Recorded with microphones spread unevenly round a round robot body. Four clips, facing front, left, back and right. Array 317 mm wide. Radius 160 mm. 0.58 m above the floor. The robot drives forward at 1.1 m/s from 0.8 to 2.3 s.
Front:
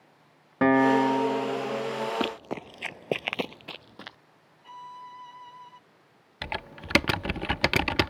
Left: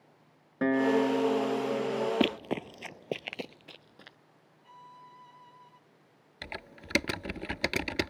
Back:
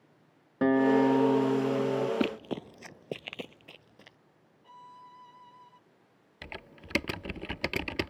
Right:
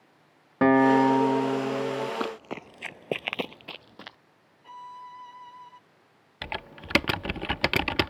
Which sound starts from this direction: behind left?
Running footsteps, at 2.2 s.